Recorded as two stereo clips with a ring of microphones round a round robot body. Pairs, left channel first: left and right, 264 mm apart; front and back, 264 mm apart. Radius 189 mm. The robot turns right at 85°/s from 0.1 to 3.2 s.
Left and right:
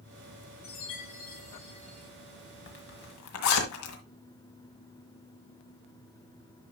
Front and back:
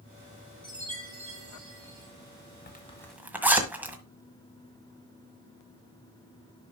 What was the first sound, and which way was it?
A chime, 85° left.